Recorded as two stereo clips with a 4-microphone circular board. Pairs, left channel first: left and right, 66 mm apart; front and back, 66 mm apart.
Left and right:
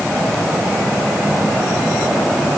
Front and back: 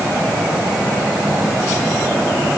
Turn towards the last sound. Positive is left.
No sound to turn to.